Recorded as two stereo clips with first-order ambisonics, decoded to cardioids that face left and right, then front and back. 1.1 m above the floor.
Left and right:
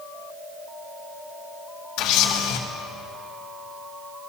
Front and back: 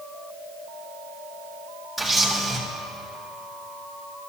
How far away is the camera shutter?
About 2 m.